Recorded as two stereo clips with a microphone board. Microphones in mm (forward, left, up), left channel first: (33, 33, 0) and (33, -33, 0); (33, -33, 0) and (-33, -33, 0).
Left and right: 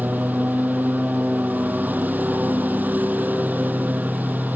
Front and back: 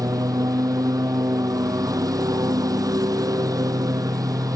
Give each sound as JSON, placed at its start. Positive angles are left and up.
{"t": 0.0, "sound": "a lawn mower", "azimuth_deg": -155}